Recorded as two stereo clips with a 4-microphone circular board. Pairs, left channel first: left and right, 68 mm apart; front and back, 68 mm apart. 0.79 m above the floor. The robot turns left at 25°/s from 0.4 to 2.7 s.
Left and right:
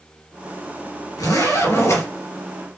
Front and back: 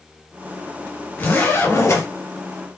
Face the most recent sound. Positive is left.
turn(degrees=30)